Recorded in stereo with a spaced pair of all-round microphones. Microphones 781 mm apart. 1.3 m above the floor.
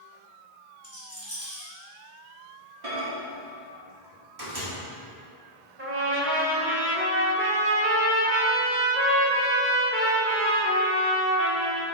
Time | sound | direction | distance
0.8 | a rattle | 20° left (ahead or behind) | 2.5 m
2.8 | a microwave | 50° right (ahead or behind) | 2.0 m
5.8 | a trumpet | 15° right (ahead or behind) | 1.2 m